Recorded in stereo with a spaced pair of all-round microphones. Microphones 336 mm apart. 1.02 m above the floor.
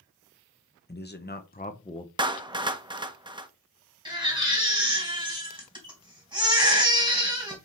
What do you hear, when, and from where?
0.9 s a man speaking: 30° left (ahead or behind), 0.8 m; by 2.1 s 15° left (ahead or behind), 0.7 m
2.2 s a clap: 15° right (ahead or behind), 0.7 m
4.0 s a baby crying: 15° right (ahead or behind), 3 m